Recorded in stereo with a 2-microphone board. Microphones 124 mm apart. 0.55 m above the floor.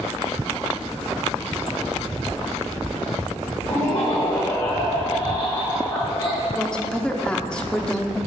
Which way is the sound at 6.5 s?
5° left (ahead or behind).